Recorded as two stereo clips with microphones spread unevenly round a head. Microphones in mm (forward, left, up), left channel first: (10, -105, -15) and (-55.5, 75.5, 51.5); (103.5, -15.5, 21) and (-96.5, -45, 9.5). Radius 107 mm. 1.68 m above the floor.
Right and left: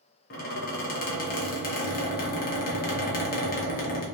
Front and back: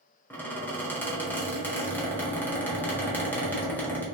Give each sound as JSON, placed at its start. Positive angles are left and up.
{"t": 0.3, "sound": "a squeak", "azimuth_deg": -50, "distance_m": 0.9}